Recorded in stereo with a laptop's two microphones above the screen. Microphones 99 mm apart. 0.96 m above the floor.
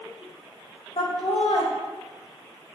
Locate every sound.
1.0 s laughter: 75° left (ahead or behind), 2 m